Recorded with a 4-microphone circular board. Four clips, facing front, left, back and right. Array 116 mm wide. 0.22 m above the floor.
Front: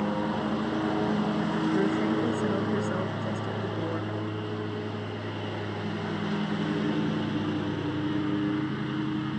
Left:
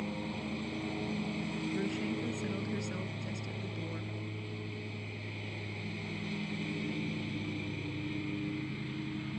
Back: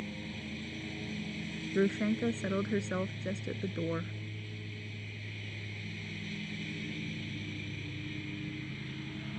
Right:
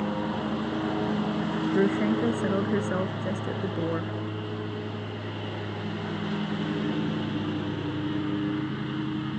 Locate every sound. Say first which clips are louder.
0.0 s a lawn mower: right 10 dB, front 15 dB; 35° right
1.8 s a woman speaking: right 14 dB, front 1 dB; 90° right